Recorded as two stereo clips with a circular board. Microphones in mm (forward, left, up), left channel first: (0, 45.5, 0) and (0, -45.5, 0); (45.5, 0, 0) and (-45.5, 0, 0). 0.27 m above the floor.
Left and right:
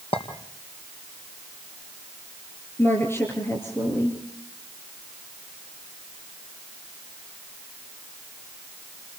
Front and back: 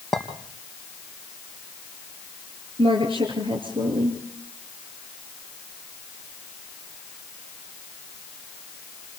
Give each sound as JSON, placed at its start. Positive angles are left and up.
{"t": 0.1, "sound": "a clink", "azimuth_deg": 90, "distance_m": 3.5}
{"t": 2.8, "sound": "a woman speaking", "azimuth_deg": 155, "distance_m": 4.0}